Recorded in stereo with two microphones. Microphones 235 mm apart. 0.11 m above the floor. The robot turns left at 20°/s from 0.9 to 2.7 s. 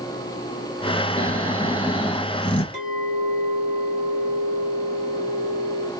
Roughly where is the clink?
Right.